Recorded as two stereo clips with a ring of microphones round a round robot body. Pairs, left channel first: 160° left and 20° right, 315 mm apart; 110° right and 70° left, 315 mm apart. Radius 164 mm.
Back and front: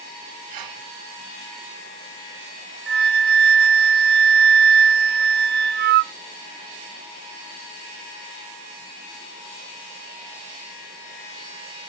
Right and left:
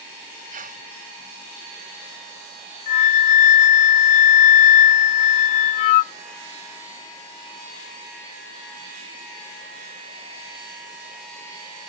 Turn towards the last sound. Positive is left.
turn(degrees=-85)